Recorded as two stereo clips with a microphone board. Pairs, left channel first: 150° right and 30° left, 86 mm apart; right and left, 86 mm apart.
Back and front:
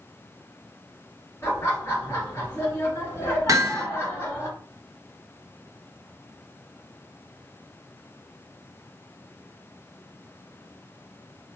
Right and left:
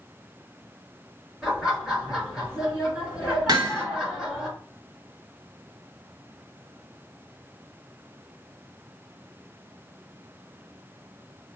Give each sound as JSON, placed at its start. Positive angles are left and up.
{"t": 1.4, "sound": "laughter", "azimuth_deg": 170, "distance_m": 1.6}
{"t": 3.5, "sound": "hammering", "azimuth_deg": 70, "distance_m": 0.9}